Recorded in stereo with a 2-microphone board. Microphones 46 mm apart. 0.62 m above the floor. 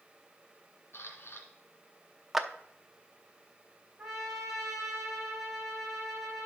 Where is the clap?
5° right (ahead or behind), 0.7 m.